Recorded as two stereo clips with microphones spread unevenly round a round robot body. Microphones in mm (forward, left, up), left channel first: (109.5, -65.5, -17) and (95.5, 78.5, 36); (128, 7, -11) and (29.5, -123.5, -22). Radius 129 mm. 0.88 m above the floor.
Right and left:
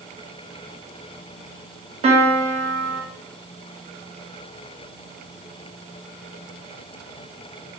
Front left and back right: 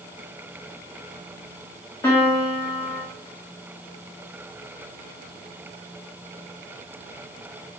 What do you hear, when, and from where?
2.0 s a piano: 110° left, 0.6 m